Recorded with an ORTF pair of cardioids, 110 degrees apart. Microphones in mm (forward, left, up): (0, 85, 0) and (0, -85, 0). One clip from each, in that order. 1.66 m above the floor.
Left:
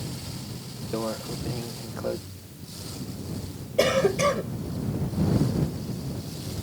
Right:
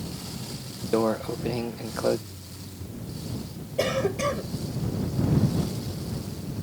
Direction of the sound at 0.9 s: 35° right.